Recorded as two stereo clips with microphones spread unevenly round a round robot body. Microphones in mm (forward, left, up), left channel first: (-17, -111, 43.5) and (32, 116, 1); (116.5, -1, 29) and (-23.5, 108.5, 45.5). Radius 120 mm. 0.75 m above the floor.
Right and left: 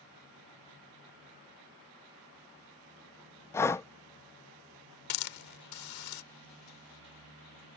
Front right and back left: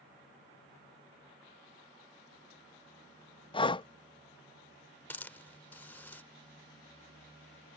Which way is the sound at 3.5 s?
15° right.